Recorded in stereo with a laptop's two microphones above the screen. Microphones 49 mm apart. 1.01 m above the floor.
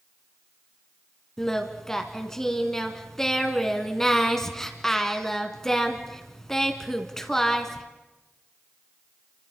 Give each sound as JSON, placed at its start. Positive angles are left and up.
{"t": 1.4, "sound": "singing", "side_deg": 10, "distance_m": 2.0}